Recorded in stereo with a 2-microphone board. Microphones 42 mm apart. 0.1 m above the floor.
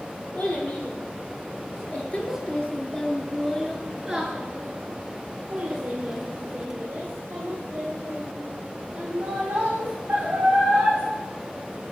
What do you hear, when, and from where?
0.3 s a child speaking: 50° left (ahead or behind), 1.9 m; by 11.0 s 45° right (ahead or behind), 4.5 m